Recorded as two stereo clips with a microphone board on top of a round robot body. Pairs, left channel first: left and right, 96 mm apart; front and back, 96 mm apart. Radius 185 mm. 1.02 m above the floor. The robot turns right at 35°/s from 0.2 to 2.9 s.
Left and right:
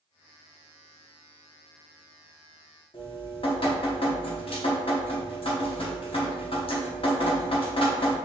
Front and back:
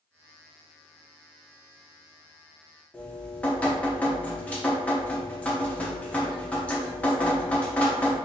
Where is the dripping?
75° left, 1.4 m.